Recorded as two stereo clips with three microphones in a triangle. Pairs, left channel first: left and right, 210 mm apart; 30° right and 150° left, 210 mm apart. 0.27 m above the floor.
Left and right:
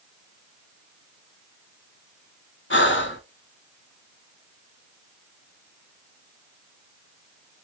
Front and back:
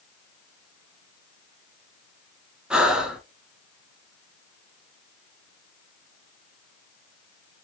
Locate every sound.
2.7 s breathing: 65° left, 0.7 m